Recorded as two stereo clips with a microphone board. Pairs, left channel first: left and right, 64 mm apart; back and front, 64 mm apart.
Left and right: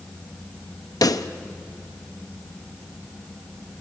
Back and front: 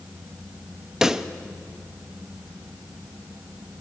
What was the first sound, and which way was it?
A pop, 80° left.